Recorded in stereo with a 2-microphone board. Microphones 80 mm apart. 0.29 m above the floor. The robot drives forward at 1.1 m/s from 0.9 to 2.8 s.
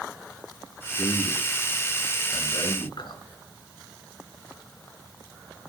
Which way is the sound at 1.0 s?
50° left (ahead or behind).